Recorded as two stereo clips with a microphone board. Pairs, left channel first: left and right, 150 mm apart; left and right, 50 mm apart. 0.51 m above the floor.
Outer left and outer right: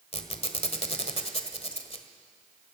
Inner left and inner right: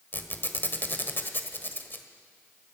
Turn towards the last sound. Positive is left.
turn(degrees=45)  # may be behind; listen again after turning